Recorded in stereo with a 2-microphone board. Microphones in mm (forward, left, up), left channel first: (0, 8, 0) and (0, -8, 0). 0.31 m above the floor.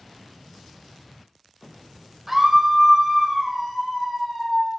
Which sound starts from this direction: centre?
A scream, at 2.3 s.